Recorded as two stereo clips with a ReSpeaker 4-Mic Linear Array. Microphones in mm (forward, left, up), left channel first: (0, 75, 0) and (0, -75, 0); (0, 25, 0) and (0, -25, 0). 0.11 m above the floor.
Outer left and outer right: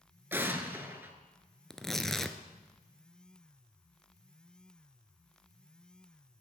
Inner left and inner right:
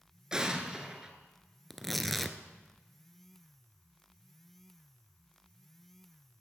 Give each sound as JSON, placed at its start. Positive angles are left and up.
{"t": 0.3, "sound": "an explosion", "side_deg": -15, "distance_m": 1.0}
{"t": 1.7, "sound": "tearing paper", "side_deg": 5, "distance_m": 0.6}